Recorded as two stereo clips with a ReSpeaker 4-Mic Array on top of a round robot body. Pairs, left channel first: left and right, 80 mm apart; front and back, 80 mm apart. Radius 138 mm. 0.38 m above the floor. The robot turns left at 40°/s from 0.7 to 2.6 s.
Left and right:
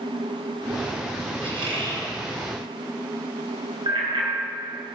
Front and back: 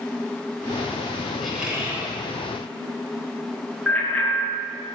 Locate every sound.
1.4 s a squeak: 90° right, 6 m; by 2.1 s 115° right, 6 m
3.9 s a bicycle bell: 75° right, 4.5 m